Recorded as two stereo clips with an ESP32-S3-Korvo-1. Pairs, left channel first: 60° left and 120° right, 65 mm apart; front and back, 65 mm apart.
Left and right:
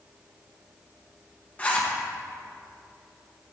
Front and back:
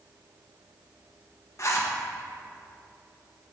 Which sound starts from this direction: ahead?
A zipper, at 1.6 s.